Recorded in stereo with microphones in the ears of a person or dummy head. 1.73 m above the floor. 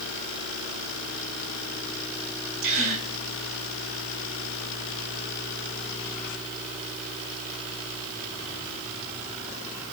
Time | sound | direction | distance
2.6 | a gasp | 75° right (ahead or behind) | 3 m